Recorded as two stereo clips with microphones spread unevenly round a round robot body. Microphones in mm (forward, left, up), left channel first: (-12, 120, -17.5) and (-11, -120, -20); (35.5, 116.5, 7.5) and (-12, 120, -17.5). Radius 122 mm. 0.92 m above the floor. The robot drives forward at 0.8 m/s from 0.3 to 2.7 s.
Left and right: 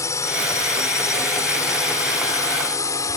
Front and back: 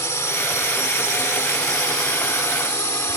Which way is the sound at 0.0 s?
10° left.